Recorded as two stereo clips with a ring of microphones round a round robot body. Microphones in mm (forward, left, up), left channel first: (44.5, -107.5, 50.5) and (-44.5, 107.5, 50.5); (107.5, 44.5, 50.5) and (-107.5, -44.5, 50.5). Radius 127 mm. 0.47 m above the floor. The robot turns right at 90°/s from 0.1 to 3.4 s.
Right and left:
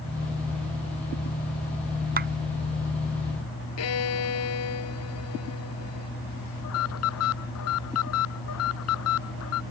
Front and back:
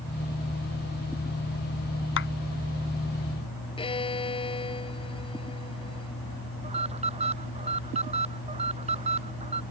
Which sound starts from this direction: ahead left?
A clap, at 2.2 s.